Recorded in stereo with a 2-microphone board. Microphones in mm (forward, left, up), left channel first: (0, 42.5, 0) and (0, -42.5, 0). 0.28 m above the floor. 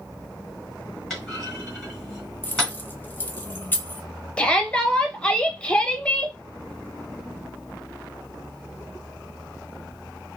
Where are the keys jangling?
25° left (ahead or behind), 0.7 m.